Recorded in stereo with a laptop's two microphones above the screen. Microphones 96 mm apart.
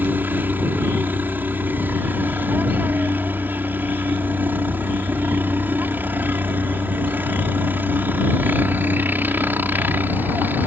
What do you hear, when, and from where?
0.0 s a helicopter: 20° right (ahead or behind)